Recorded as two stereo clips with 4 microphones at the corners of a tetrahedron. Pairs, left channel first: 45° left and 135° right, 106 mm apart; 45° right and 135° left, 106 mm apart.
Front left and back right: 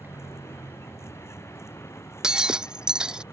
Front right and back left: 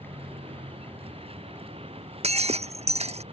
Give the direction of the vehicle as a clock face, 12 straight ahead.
8 o'clock.